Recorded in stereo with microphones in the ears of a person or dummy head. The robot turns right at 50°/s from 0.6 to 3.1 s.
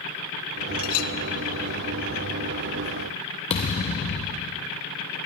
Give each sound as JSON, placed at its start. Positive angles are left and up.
{"t": 0.8, "sound": "a clink", "side_deg": 75, "distance_m": 0.7}
{"t": 3.5, "sound": "a thud", "side_deg": 25, "distance_m": 0.6}